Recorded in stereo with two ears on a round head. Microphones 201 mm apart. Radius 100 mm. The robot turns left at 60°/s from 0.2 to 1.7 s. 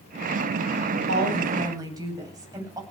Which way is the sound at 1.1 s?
125° right.